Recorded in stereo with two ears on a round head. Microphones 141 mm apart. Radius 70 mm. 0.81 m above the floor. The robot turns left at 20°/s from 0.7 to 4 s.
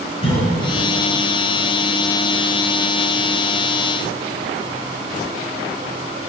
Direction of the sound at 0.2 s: 40° left (ahead or behind).